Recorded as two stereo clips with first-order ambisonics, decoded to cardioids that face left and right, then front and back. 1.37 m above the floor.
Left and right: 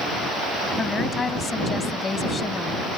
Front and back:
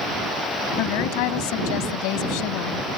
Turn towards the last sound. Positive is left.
turn(degrees=15)